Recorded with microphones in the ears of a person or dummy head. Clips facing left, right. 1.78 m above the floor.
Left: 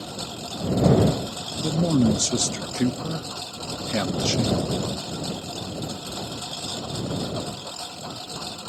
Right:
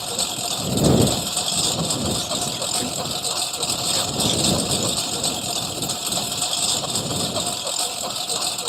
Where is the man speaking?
50° left (ahead or behind).